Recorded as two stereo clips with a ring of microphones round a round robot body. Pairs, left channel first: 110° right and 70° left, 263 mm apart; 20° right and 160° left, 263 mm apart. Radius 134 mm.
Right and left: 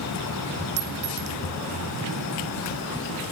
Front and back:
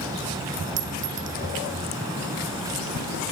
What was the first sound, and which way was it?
A clink, 115° left.